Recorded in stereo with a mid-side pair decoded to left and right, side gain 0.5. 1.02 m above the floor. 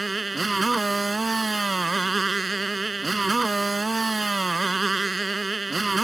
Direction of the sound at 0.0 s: 20° right.